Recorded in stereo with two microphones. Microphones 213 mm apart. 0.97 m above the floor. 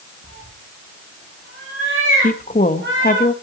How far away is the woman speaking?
About 1.0 m.